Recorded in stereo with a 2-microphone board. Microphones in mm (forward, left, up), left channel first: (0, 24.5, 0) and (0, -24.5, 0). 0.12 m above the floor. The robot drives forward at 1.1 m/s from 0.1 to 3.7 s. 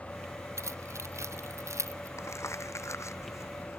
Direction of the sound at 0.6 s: 75° right (ahead or behind).